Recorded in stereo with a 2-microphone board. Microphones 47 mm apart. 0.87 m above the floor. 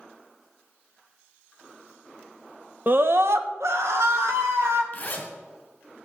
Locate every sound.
2.9 s a scream: 40° right (ahead or behind), 0.6 m; by 4.8 s 80° right, 2.5 m
4.9 s a zipper: 35° left (ahead or behind), 2 m